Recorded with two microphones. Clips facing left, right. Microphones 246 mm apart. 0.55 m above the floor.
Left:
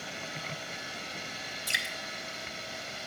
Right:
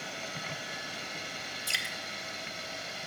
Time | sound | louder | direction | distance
1.7 | dripping | left 1 dB | 20° left (ahead or behind) | 1.1 m